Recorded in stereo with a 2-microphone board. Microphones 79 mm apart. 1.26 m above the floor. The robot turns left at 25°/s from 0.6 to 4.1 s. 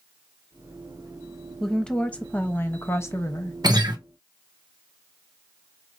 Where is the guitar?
60° right (ahead or behind), 0.7 m; by 4.0 s 70° right (ahead or behind), 0.7 m.